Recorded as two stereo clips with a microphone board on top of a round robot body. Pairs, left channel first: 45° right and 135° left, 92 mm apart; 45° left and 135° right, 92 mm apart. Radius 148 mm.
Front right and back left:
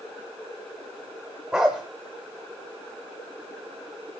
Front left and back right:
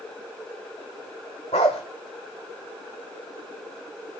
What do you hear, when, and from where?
1.5 s a dog barking: 55° left, 0.5 m